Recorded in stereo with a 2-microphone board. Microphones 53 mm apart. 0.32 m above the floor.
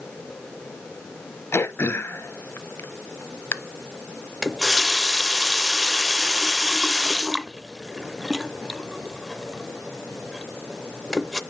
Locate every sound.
1.5 s throat clearing: 50° left (ahead or behind), 0.6 m
4.4 s a running tap: 5° right (ahead or behind), 0.5 m